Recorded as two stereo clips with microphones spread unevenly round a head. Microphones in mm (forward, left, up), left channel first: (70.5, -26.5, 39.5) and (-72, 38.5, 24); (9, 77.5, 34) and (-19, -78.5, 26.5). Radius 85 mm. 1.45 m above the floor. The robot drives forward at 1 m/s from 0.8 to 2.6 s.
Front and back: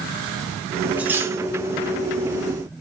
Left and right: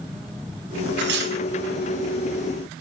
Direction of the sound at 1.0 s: 120° right.